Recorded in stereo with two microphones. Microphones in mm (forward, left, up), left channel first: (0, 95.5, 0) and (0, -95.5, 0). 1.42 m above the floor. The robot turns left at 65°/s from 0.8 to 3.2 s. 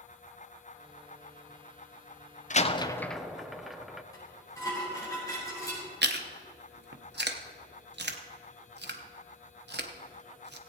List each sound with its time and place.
2.5 s a door slam: 40° left (ahead or behind), 0.5 m; by 4.0 s centre (ahead or behind), 0.5 m
4.1 s dishes clattering: 20° left (ahead or behind), 4.5 m
6.0 s chewing: 65° right (ahead or behind), 0.8 m